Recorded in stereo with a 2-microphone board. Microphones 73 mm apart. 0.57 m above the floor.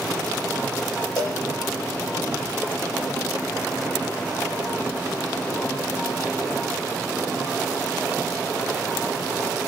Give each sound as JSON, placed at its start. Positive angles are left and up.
{"t": 1.2, "sound": "a cowbell", "side_deg": 70, "distance_m": 4.5}